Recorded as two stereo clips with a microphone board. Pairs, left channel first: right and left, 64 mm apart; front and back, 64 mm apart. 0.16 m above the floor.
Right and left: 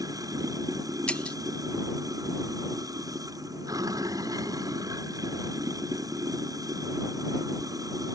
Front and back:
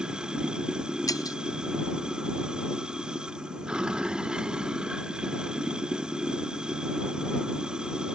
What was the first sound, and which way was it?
Running water, 105° left.